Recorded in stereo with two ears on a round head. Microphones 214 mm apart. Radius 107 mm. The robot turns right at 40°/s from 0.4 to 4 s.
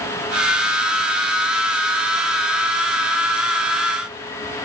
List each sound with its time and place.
Only background noise.